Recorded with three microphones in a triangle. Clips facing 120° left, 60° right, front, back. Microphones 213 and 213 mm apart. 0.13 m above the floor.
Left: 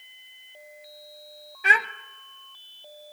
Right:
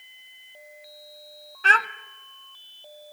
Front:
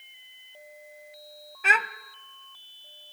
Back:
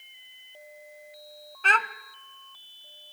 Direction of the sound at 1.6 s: 65° left.